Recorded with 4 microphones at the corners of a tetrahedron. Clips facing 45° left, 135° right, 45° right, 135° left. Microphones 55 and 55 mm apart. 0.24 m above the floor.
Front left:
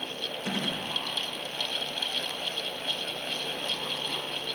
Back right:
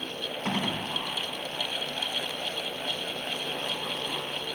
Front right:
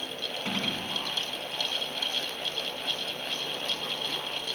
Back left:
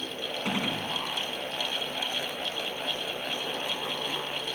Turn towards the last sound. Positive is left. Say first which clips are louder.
# back right 3 dB, back left 2 dB
turn(degrees=-155)